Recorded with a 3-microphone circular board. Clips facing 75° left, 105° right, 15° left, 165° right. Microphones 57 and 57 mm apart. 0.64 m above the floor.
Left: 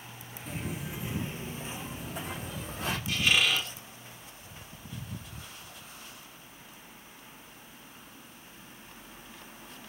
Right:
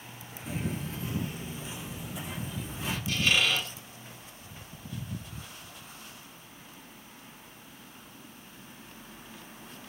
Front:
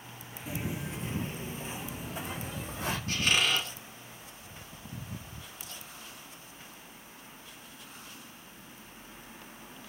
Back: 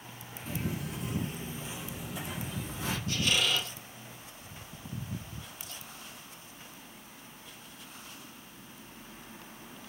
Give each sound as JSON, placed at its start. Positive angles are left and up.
{"t": 0.5, "sound": "footsteps", "azimuth_deg": -35, "distance_m": 0.6}
{"t": 3.1, "sound": "a squeak", "azimuth_deg": -10, "distance_m": 1.2}